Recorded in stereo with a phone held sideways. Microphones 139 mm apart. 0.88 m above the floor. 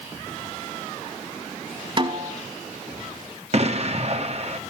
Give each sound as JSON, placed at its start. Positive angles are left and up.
{"t": 2.0, "sound": "a snare drum", "side_deg": -40, "distance_m": 1.8}
{"t": 3.5, "sound": "an explosion", "side_deg": -50, "distance_m": 1.5}